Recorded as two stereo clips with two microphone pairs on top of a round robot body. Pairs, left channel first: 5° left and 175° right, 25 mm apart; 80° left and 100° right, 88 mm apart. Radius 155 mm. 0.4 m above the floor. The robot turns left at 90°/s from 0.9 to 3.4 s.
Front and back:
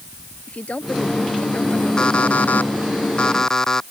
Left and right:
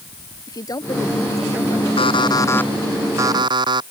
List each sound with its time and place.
0.5 s a woman speaking: 30° left; by 3.0 s 155° right
2.0 s an alarm clock: 65° left; by 3.8 s 60° right